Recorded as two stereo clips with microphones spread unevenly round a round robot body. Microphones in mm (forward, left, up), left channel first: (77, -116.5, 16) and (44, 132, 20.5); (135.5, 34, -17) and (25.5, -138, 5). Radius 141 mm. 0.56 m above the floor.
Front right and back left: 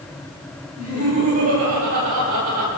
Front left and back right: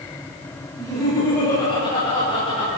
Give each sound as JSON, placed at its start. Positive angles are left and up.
{"t": 0.8, "sound": "laughter", "azimuth_deg": 135, "distance_m": 5.0}